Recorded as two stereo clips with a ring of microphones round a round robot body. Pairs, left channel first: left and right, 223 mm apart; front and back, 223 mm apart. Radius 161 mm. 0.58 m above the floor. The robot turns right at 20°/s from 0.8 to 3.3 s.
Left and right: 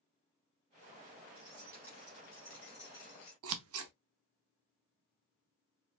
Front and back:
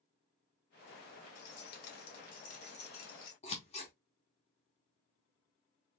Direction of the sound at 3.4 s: 70° right.